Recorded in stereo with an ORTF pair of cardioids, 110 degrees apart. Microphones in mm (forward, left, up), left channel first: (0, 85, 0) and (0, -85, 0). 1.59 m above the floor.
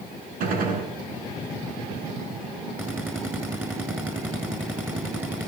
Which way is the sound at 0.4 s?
60° right.